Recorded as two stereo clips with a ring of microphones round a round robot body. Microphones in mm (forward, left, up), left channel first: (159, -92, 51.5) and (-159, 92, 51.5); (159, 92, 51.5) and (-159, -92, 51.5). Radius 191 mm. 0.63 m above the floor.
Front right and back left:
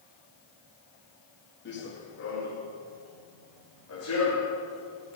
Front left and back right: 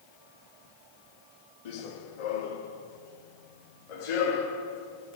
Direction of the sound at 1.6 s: 30° left.